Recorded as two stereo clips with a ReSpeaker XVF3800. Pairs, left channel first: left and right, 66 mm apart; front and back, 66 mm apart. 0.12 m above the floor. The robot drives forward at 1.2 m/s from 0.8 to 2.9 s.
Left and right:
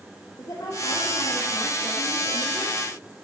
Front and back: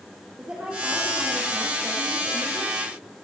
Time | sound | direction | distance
0.4 | a woman speaking | 110° left | 4.5 m